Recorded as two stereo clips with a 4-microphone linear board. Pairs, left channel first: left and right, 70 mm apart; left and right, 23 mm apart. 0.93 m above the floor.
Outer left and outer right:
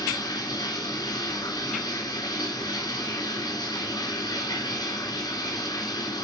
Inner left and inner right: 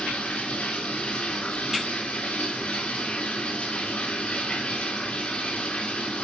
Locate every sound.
0.0 s running water: 75° left (ahead or behind), 2.5 m